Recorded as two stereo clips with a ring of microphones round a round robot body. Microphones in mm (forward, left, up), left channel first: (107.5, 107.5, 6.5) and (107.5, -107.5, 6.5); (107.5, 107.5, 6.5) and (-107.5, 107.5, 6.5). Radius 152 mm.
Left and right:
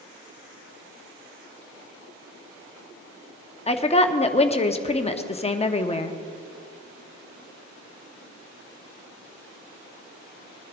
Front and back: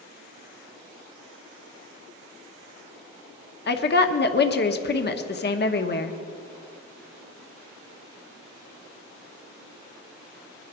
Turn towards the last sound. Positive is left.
turn(degrees=30)